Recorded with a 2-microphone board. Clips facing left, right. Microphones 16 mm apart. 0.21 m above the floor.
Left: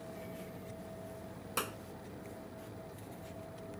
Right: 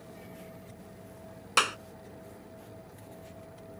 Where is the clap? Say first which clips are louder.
Right 13 dB; 50° right (ahead or behind).